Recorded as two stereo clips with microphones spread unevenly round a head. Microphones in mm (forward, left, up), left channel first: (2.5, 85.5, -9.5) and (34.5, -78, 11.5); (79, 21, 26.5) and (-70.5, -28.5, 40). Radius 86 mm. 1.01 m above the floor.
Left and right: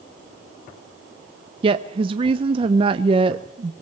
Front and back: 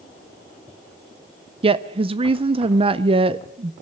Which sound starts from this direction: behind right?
A woman speaking, at 1.6 s.